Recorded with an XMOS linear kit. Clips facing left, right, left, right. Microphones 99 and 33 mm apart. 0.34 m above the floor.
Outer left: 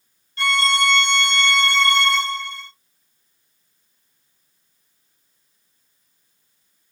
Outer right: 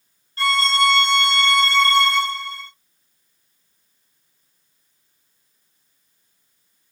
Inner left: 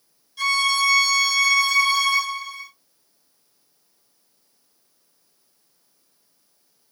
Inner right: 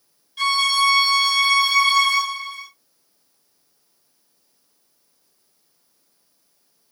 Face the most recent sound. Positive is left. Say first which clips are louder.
# outer right 1 dB, inner right 2 dB
turn(degrees=-35)  # may be behind; listen again after turning